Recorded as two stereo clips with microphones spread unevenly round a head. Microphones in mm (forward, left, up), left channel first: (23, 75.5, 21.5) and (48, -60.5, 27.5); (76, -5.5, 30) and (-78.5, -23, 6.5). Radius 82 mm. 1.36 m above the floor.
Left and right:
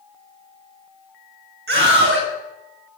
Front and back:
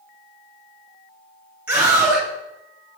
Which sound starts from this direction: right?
A scream, at 1.7 s.